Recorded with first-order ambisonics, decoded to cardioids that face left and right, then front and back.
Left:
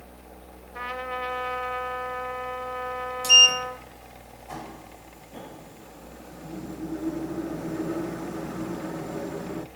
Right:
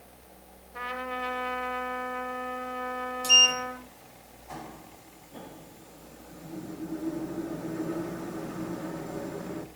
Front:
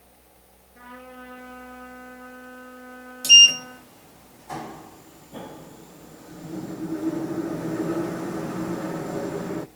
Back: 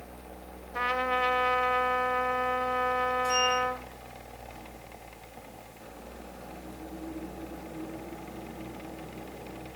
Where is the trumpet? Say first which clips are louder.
Left 2 dB, back 15 dB; 170° left, 1.5 m.